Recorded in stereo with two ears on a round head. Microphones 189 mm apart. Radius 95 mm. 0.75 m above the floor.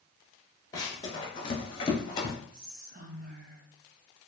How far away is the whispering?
About 0.5 m.